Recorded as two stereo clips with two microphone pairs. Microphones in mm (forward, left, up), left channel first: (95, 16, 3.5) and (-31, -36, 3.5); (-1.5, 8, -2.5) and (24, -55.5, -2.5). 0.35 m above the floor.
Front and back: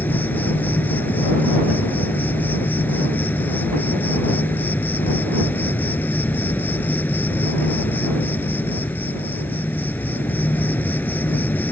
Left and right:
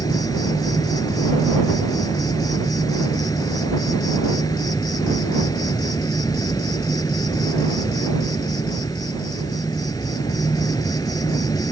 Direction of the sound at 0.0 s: 95° left.